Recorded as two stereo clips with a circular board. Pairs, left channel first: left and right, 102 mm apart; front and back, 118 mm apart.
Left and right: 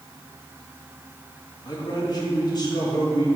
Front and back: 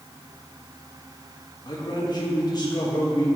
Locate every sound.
1.6 s a man speaking: 50° left, 1.8 m